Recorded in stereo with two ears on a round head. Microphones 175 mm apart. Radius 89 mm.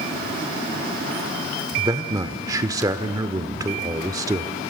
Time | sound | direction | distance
1.8 | a man speaking | 20° right (ahead or behind) | 0.8 m